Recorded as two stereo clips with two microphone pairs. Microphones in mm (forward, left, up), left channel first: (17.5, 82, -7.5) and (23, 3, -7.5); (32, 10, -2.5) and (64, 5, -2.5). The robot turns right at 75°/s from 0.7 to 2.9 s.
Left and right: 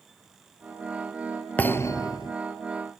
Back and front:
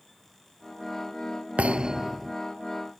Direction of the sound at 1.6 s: 25° left.